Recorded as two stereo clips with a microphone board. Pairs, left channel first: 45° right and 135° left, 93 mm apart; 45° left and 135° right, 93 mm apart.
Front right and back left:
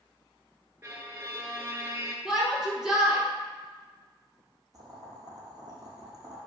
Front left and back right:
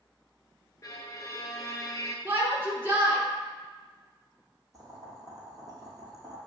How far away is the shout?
About 1.3 m.